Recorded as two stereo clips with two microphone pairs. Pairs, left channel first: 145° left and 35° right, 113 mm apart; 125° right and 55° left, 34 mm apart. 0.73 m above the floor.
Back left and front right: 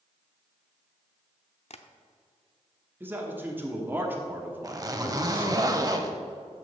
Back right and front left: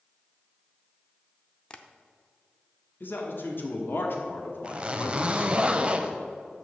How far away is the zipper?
About 0.7 m.